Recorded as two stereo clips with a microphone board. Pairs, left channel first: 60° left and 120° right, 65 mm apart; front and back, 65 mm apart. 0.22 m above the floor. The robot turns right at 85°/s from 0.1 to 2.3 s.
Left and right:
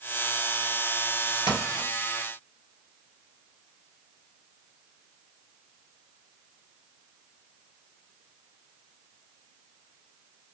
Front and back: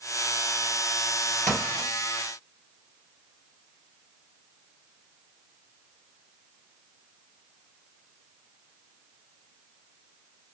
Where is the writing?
65° left, 2.5 m; by 1.9 s 100° left, 2.5 m.